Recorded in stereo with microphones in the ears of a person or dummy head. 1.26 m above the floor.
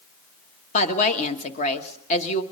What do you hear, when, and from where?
0.7 s a woman speaking: 35° left (ahead or behind), 1.3 m